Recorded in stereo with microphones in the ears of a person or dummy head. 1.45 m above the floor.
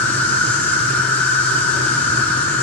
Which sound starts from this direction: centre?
An insect, at 0.0 s.